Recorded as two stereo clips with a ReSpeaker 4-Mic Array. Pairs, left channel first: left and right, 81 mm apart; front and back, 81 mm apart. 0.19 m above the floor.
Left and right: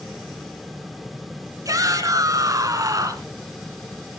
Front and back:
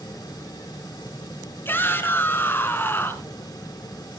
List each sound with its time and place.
1.6 s a shout: 55° right, 2.5 m